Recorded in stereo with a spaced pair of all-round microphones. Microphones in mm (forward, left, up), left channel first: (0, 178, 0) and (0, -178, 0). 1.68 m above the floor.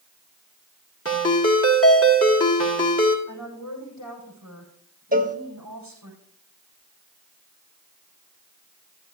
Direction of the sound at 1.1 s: 40° left (ahead or behind).